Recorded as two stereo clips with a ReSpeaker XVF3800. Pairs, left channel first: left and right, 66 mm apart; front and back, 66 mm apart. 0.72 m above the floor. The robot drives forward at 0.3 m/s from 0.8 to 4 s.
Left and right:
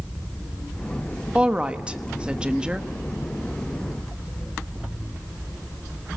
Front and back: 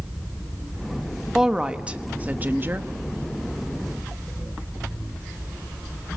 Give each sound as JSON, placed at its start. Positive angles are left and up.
{"t": 1.4, "sound": "a woman speaking", "azimuth_deg": -115, "distance_m": 0.8}